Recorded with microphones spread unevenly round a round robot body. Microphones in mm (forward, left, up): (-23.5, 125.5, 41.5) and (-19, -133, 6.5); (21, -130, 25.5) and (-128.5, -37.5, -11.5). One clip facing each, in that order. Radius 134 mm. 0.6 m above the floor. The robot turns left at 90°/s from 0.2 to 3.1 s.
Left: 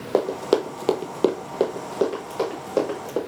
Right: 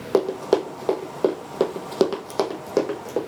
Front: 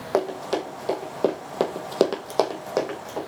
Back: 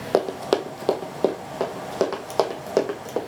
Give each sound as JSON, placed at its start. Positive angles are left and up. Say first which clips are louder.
{"t": 0.1, "sound": "running footsteps", "louder": "right 1 dB, back 3 dB", "azimuth_deg": -155, "distance_m": 1.2}